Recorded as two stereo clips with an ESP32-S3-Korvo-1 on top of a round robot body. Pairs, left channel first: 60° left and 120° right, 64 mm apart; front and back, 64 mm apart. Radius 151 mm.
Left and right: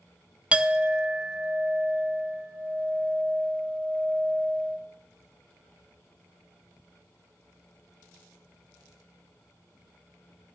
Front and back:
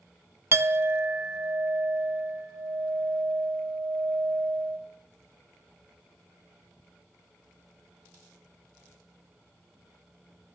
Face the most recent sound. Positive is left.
turn(degrees=175)